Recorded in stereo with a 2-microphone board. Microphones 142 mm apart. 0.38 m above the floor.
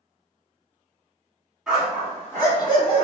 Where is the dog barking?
Centre (ahead or behind), 1.4 m; by 3.0 s 40° left (ahead or behind), 1.3 m.